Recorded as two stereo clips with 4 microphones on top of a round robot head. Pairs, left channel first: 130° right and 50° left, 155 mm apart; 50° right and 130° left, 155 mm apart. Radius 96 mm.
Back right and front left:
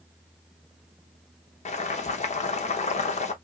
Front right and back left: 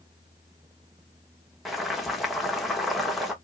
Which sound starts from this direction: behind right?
Boiling, at 1.6 s.